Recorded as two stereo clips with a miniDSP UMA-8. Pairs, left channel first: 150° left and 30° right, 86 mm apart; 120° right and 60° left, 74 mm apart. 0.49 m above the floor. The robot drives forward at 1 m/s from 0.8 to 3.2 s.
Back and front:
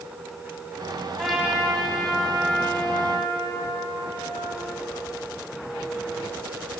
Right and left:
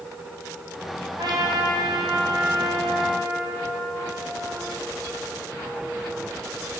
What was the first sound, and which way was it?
A trumpet, 55° left.